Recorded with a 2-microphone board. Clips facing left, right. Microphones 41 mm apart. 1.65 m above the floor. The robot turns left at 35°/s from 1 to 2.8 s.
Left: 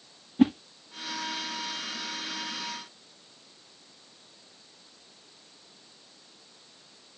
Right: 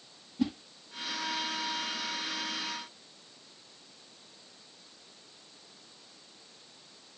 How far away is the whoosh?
About 0.6 m.